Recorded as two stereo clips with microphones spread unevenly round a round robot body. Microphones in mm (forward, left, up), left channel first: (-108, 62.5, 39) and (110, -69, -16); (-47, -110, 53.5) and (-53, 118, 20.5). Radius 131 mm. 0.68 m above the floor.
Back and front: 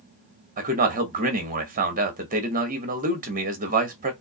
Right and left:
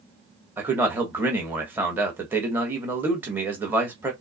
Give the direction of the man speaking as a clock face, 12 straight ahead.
12 o'clock.